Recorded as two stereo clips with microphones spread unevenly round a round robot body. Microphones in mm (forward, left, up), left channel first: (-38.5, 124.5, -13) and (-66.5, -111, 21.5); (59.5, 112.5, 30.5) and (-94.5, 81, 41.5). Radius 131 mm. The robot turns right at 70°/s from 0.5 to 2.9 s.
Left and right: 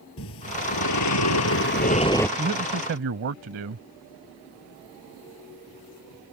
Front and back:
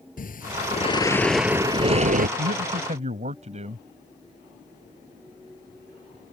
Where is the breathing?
40° left; by 2.3 s 165° left.